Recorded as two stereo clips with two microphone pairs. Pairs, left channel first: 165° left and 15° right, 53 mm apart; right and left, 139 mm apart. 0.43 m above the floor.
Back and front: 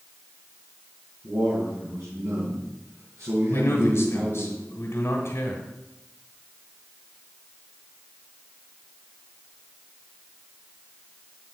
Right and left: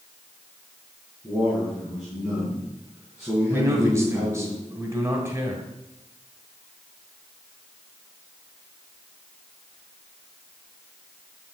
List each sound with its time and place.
1.2 s a man speaking: 10° left, 4.5 m
3.5 s a man speaking: 155° left, 1.7 m